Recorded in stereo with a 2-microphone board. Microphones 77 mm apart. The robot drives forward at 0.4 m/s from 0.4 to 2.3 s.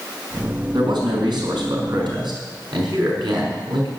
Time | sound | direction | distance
0.7 | a man speaking | 75° right (ahead or behind) | 5 m